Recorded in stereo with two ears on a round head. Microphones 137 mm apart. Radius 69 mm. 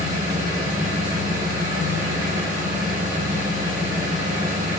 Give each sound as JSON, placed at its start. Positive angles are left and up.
{"t": 0.0, "sound": "an engine running", "side_deg": -55, "distance_m": 1.9}